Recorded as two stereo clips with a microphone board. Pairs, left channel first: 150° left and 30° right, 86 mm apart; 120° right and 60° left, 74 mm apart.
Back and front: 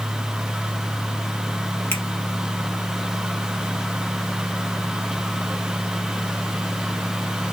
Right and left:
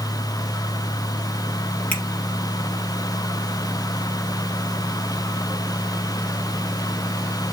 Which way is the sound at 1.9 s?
170° right.